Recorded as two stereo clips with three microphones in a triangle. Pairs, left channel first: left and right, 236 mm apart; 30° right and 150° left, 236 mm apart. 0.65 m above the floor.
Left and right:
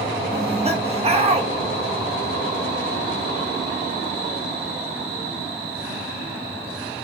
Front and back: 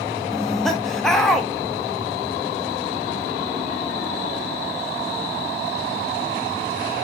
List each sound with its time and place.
0.3 s laughter: 115° right, 0.7 m